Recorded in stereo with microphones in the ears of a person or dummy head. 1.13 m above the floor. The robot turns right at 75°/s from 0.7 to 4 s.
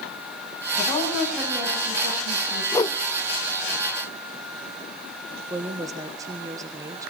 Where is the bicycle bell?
No bicycle bell in this recording.